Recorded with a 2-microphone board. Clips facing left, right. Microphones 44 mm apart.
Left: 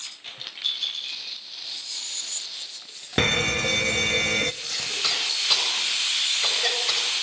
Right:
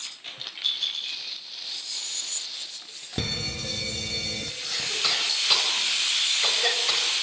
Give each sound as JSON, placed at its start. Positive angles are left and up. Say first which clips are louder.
{"t": 3.2, "sound": "a fire alarm", "louder": "left 10 dB", "side_deg": 50, "distance_m": 1.0}
{"t": 4.6, "sound": "a cough", "louder": "even", "side_deg": -5, "distance_m": 8.5}